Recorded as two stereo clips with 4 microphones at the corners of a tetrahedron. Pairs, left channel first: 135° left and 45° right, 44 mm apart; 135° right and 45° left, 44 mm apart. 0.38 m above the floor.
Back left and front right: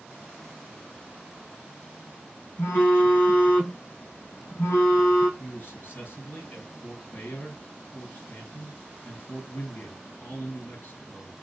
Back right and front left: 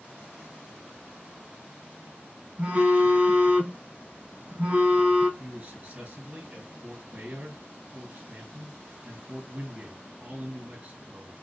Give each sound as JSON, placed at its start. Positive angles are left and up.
{"t": 2.6, "sound": "a phone buzzing", "azimuth_deg": 100, "distance_m": 2.5}
{"t": 5.4, "sound": "a man speaking", "azimuth_deg": 95, "distance_m": 3.5}